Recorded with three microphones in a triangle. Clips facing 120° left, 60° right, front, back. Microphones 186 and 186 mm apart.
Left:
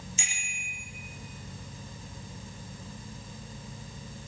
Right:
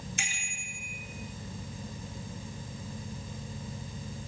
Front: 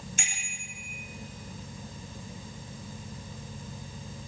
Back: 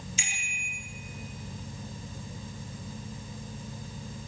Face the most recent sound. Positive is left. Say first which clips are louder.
# right 2 dB, even
turn(degrees=-35)